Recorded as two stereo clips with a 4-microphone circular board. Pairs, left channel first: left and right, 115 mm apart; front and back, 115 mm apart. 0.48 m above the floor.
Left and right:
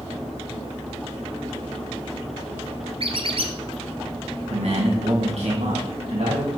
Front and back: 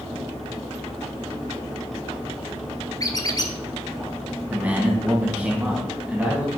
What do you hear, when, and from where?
3.0 s a squeak: 55° right, 1.1 m
4.5 s a man speaking: 105° right, 4 m